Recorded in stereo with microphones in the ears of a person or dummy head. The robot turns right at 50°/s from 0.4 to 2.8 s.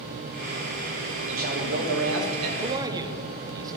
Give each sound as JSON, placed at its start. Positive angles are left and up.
{"t": 1.3, "sound": "a man speaking", "azimuth_deg": -145, "distance_m": 1.3}
{"t": 2.6, "sound": "a man speaking", "side_deg": -35, "distance_m": 0.7}